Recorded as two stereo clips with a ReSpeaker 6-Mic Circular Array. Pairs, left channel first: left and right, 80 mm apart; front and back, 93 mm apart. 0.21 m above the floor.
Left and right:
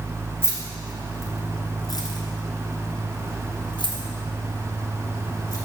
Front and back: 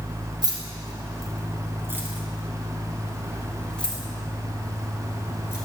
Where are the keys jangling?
145° left, 1.8 m; by 5.6 s 60° left, 2.5 m.